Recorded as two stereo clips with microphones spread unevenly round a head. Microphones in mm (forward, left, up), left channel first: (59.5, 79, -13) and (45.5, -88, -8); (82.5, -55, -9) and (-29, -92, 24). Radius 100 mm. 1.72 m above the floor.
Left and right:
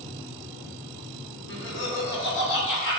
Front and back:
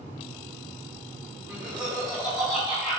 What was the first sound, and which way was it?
Laughter, 120° left.